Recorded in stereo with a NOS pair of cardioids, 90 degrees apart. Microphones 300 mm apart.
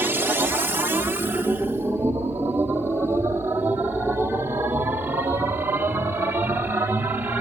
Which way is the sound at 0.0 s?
5° right.